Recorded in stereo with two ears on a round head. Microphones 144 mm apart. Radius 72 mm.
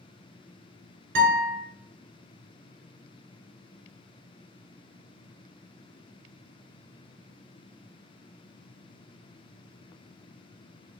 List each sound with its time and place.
1.1 s a guitar: 70° right (ahead or behind), 1.5 m